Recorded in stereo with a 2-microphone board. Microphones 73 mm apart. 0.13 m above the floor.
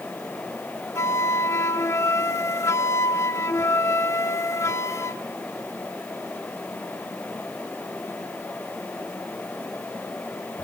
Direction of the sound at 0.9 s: 40° left (ahead or behind).